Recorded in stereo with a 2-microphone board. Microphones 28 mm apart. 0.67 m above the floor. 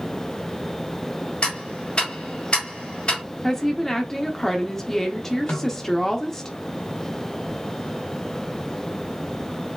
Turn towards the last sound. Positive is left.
turn(degrees=75)  # may be behind; listen again after turning